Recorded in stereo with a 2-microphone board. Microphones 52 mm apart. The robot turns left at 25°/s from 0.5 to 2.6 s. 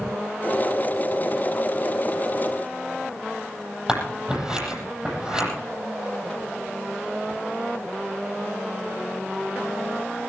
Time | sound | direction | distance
3.9 | scissors | 15° right (ahead or behind) | 9.5 m